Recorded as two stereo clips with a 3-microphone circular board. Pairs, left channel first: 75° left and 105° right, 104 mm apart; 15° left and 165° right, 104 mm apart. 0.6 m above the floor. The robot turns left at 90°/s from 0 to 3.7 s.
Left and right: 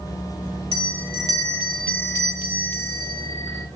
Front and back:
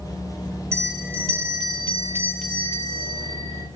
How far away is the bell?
About 1.5 m.